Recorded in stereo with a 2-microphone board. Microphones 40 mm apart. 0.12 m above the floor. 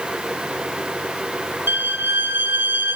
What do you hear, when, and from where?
1.7 s a violin: 60° right (ahead or behind), 2.5 m